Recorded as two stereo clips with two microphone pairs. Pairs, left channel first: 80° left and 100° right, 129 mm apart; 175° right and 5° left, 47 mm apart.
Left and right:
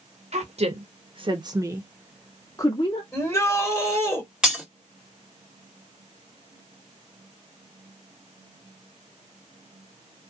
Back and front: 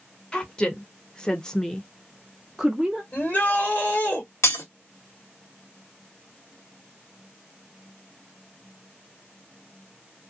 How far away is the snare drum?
No snare drum in this recording.